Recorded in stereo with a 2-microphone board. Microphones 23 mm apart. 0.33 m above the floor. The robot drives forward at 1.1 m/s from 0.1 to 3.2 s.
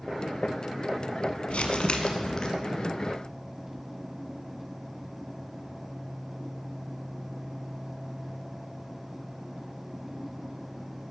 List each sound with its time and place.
1.5 s crumpling: 70° left (ahead or behind), 1.1 m; by 2.5 s 40° left (ahead or behind), 1.7 m